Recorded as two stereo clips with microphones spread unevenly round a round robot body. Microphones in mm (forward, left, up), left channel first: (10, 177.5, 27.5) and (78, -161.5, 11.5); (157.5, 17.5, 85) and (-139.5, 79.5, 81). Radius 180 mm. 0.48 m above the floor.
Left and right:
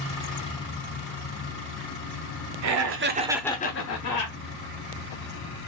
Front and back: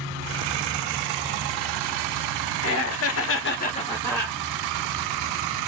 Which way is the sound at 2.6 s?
55° right.